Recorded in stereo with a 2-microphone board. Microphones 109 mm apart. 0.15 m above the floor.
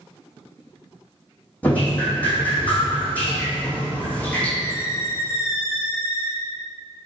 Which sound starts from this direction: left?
A squeak, at 4.6 s.